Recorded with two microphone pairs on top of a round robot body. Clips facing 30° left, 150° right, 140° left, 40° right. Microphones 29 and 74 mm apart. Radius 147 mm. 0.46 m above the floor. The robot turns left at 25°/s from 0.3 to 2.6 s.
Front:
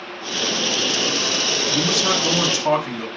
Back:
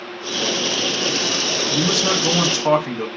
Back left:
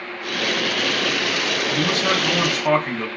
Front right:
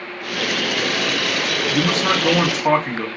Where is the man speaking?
60° right, 1.0 m; by 3.1 s 80° right, 1.0 m.